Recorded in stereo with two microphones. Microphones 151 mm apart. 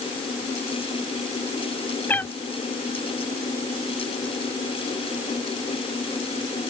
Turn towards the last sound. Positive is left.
turn(degrees=10)  # may be behind; listen again after turning